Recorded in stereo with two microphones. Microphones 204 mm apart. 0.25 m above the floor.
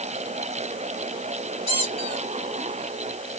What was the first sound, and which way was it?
A squeak, 30° left (ahead or behind).